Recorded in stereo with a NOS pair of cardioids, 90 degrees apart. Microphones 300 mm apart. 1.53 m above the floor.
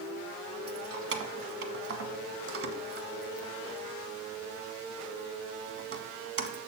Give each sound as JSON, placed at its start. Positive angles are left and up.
{"t": 0.7, "sound": "keys jangling", "azimuth_deg": -50, "distance_m": 1.2}